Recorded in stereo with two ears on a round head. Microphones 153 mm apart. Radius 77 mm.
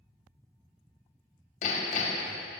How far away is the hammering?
About 1.3 m.